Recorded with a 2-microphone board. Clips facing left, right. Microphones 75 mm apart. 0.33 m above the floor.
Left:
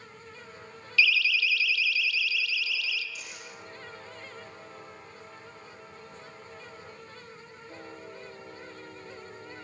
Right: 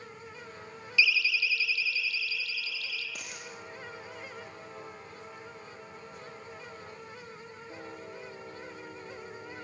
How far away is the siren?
About 2 m.